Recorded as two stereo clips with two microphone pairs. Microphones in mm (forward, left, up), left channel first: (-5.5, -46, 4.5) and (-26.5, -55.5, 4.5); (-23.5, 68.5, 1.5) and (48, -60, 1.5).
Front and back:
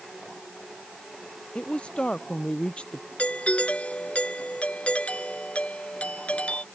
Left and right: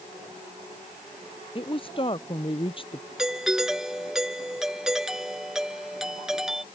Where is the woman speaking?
65° left.